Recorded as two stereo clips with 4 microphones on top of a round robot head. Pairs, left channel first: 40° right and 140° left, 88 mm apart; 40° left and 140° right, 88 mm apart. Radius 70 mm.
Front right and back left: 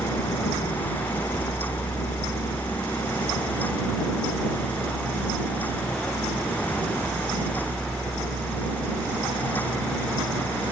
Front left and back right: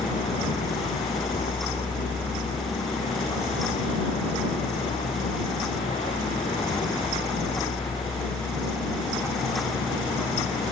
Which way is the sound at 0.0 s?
20° left.